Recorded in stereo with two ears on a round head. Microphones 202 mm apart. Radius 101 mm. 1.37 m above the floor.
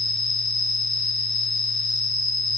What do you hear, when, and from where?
0.0 s an insect: 20° left (ahead or behind), 1.9 m